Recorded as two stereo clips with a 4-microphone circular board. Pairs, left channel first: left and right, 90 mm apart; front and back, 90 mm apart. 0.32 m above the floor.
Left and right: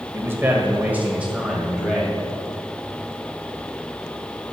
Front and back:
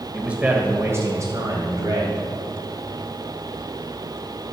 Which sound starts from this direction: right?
A man speaking, at 0.1 s.